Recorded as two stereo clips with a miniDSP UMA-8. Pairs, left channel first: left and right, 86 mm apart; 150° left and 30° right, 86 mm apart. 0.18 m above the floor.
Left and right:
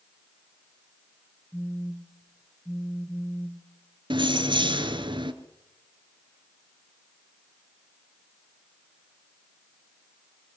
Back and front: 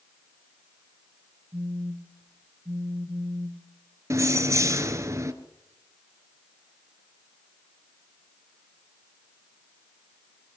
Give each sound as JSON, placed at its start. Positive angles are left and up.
{"t": 1.5, "sound": "a phone buzzing", "azimuth_deg": -25, "distance_m": 3.0}
{"t": 4.1, "sound": "keys jangling", "azimuth_deg": -85, "distance_m": 1.8}